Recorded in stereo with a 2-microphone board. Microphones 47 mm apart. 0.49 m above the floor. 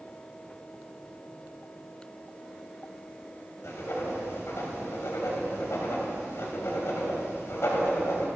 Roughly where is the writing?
Left.